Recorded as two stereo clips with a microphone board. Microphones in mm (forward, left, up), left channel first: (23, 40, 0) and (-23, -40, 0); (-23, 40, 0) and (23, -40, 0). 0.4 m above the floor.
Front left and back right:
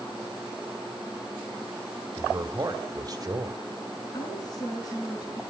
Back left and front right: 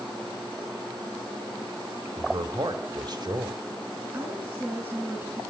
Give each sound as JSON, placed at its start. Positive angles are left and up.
{"t": 2.2, "sound": "a man speaking", "azimuth_deg": -85, "distance_m": 2.0}
{"t": 4.1, "sound": "a woman speaking", "azimuth_deg": 10, "distance_m": 5.0}